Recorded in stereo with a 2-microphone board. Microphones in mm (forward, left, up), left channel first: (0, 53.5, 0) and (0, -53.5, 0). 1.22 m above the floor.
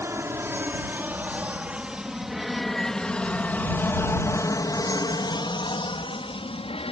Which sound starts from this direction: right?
An aircraft, at 0.0 s.